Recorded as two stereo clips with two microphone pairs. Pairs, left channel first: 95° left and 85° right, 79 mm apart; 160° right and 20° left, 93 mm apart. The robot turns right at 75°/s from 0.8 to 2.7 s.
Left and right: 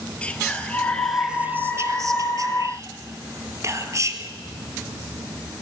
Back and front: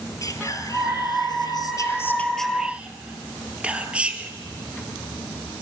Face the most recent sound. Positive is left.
turn(degrees=-55)